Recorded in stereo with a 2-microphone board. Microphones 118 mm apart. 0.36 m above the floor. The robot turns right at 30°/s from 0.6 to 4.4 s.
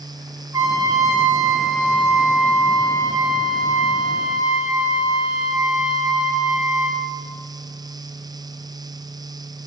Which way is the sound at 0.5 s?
35° right.